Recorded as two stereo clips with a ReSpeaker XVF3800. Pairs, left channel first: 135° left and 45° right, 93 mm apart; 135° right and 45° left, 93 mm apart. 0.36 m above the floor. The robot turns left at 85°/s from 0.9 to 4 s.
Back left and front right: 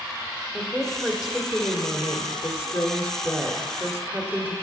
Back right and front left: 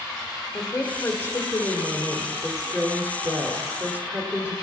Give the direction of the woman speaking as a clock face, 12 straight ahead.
3 o'clock.